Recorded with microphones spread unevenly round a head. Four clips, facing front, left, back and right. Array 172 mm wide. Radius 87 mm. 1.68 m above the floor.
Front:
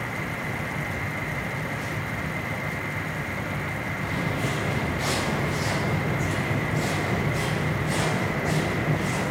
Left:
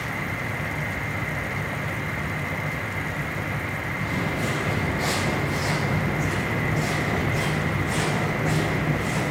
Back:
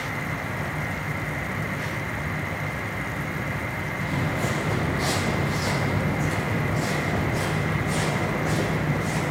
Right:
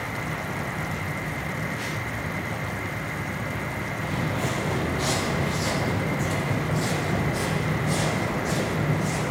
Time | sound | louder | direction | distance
4.0 | footsteps | left 1 dB, back 2 dB | 140° right | 3.5 m